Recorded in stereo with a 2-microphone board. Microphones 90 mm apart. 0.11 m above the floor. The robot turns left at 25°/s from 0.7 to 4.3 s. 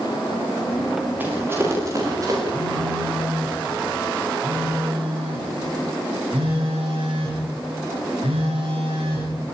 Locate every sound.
1.2 s running footsteps: 20° right (ahead or behind), 9.5 m; by 2.4 s 45° right (ahead or behind), 10 m
2.5 s a phone buzzing: 50° right, 9.5 m; by 9.4 s 90° right, 9.5 m